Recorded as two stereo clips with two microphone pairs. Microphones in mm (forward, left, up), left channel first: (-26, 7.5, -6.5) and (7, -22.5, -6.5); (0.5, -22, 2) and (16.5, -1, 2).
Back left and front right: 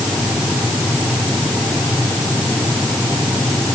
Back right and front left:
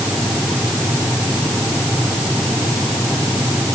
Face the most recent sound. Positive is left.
No sound to turn to.